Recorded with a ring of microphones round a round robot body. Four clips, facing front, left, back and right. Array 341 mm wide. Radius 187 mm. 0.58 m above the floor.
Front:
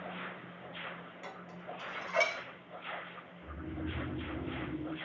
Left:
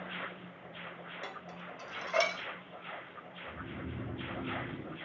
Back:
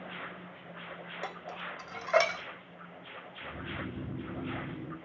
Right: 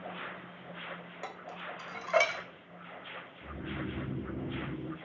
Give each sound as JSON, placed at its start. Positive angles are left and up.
{"t": 1.2, "sound": "dishes clattering", "azimuth_deg": -150, "distance_m": 1.0}
{"t": 3.4, "sound": "snoring", "azimuth_deg": -110, "distance_m": 4.5}